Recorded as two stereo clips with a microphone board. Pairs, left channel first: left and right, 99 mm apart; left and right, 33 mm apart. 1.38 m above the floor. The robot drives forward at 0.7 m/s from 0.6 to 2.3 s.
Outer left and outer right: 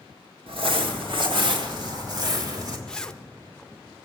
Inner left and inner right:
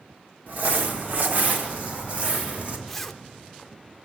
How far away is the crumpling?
About 1.5 m.